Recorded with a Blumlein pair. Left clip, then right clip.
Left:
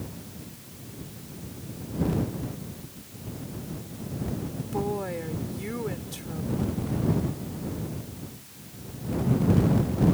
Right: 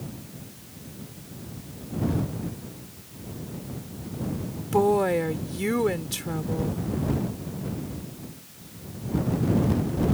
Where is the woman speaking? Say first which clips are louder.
Right 10 dB; 25° right.